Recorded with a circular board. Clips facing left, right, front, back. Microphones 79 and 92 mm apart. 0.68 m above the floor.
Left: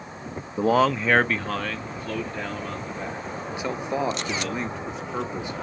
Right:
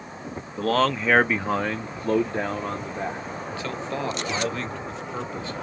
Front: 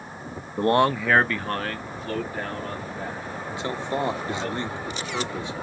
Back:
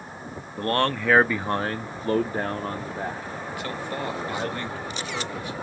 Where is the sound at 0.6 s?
35° left, 0.6 m; by 4.5 s 140° right, 2.5 m.